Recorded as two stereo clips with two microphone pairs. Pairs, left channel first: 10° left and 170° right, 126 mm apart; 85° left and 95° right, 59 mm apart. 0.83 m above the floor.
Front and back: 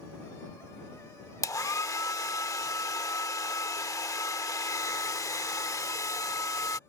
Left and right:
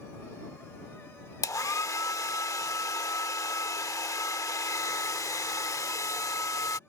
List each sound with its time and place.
1.4 s a hair dryer: 75° left